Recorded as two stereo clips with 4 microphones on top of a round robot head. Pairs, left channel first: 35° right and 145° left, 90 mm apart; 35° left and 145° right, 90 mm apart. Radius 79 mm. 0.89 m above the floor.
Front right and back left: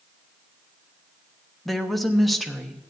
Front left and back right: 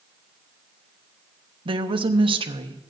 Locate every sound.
1.6 s a woman speaking: 125° right, 1.1 m